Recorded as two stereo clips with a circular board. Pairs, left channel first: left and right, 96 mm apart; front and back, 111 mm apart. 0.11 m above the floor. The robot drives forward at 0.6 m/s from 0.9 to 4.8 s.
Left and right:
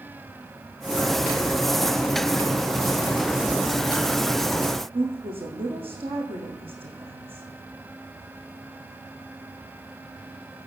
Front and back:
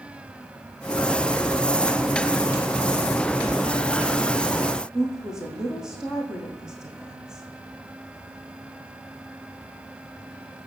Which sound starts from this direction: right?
A woman speaking, at 4.9 s.